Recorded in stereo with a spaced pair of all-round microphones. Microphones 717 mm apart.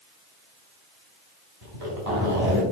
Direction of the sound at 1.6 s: 55° right (ahead or behind).